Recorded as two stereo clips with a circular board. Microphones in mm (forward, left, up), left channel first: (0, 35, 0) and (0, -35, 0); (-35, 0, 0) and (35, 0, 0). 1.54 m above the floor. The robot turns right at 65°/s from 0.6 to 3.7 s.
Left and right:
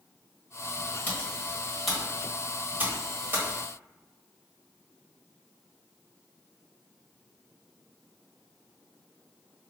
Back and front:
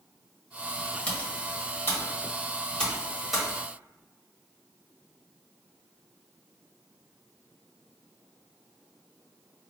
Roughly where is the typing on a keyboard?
Behind left.